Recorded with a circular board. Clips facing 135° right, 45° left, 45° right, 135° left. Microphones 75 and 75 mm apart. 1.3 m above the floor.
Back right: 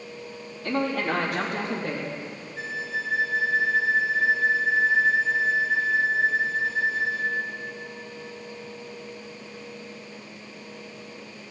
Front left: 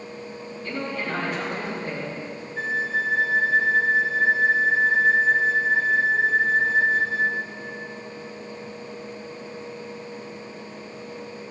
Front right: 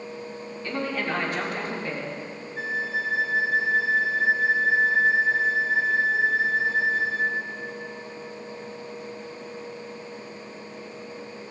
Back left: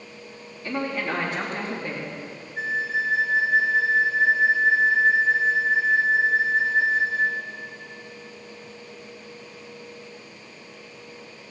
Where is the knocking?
I don't hear knocking.